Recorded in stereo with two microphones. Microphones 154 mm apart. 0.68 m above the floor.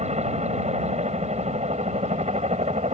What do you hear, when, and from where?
0.0 s a helicopter: 45° right (ahead or behind)